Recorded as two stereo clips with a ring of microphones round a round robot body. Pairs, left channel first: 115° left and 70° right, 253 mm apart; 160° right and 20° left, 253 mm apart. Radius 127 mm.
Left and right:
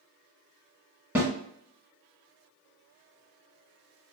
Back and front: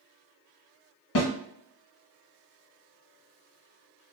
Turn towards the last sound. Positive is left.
turn(degrees=-150)